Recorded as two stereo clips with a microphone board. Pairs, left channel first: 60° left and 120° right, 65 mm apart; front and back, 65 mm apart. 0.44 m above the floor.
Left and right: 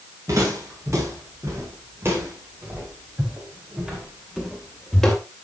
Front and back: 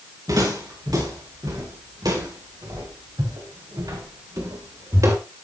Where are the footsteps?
160° right, 7 m; by 5.2 s 145° left, 3.5 m.